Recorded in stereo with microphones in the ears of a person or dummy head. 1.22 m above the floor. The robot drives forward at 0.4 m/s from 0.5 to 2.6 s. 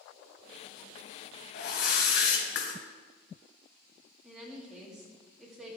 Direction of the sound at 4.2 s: Centre (ahead or behind).